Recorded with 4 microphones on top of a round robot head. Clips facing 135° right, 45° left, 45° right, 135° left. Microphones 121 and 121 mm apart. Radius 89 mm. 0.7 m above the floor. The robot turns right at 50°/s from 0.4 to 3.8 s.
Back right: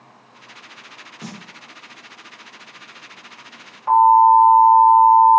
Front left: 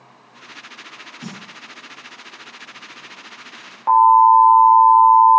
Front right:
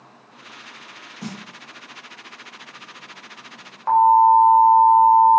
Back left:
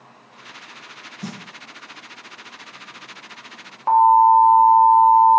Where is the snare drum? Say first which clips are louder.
Front left 1 dB, even; 100° right, 1.8 m; by 1.4 s 95° right, 1.8 m.